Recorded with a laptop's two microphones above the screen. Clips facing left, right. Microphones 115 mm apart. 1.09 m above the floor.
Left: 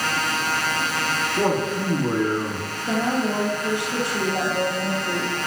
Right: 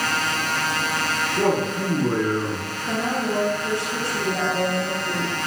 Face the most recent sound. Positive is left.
turn(degrees=20)  # may be behind; listen again after turning